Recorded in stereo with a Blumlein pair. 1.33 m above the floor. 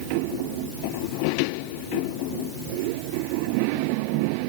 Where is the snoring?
I don't hear snoring.